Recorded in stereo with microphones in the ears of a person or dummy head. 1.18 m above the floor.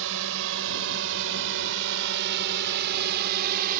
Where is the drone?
75° right (ahead or behind); by 3.8 s 50° right (ahead or behind).